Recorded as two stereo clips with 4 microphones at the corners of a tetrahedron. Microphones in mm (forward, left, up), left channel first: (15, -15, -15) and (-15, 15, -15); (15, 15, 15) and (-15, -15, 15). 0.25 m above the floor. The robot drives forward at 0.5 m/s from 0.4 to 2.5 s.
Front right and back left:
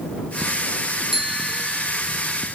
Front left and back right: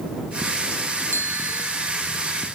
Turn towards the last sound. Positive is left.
turn(degrees=-145)